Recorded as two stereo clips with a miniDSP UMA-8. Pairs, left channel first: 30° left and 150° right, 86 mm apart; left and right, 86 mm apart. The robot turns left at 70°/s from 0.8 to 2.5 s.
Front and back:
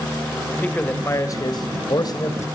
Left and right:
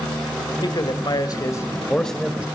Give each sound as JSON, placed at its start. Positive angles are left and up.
{"t": 0.6, "sound": "a man speaking", "azimuth_deg": 100, "distance_m": 1.9}